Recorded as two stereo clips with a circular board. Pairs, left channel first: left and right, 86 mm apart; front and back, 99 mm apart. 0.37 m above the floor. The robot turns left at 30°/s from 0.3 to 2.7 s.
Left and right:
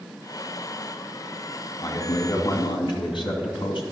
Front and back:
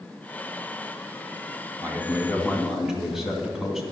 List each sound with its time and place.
1.8 s a man speaking: 120° left, 2.5 m; by 3.8 s 95° left, 2.5 m